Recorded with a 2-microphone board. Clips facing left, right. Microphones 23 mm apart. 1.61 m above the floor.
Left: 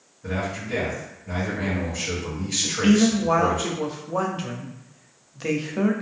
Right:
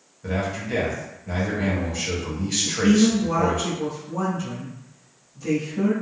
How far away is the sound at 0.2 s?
About 1.0 m.